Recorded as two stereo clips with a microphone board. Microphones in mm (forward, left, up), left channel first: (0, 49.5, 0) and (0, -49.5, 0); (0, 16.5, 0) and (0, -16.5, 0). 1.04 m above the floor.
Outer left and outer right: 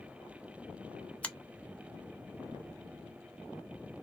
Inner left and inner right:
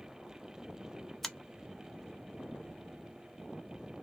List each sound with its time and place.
1.2 s a finger snap: 15° left (ahead or behind), 0.7 m